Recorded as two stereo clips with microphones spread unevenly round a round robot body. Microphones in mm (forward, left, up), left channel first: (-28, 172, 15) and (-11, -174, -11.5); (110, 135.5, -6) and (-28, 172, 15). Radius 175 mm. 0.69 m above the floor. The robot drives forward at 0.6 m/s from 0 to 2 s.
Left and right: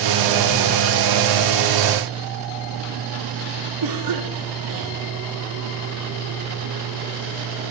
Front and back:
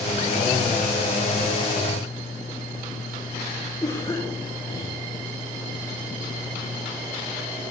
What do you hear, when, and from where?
3.8 s a cough: 90° right, 2 m